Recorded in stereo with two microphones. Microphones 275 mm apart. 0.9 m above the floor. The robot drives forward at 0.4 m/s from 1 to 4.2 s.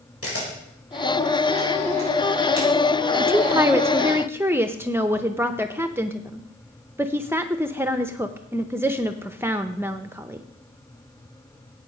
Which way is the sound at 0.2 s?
55° left (ahead or behind).